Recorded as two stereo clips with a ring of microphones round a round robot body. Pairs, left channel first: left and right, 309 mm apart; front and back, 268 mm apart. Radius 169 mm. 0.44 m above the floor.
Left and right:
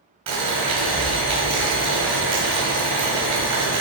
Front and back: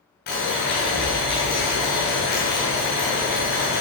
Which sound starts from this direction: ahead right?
Boiling, at 0.3 s.